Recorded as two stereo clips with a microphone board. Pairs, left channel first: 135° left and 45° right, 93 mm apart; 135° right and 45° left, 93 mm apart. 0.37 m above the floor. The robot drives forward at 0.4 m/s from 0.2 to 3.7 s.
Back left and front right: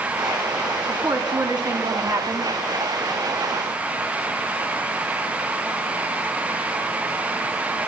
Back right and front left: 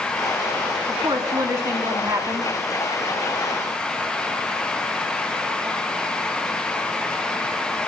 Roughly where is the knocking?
I don't hear knocking.